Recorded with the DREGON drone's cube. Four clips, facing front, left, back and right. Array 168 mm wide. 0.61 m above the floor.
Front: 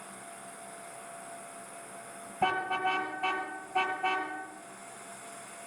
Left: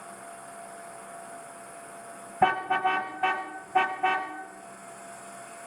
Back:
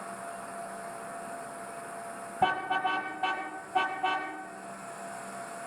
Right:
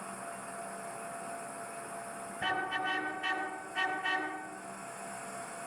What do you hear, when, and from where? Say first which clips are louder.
0.0 s an insect: right 1 dB, back 7 dB; 130° right, 5 m
2.4 s a car horn: left 11 dB, back 2 dB; 105° left, 2.5 m